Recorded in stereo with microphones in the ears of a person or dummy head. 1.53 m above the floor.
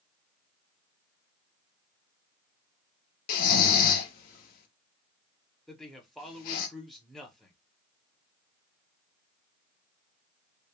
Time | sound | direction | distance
3.3 | snoring | 45° left (ahead or behind) | 0.7 m
5.7 | a man speaking | centre (ahead or behind) | 0.7 m